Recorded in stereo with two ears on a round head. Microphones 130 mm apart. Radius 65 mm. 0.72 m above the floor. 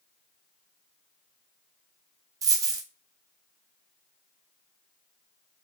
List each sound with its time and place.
2.4 s a dropped coin: 25° right (ahead or behind), 0.5 m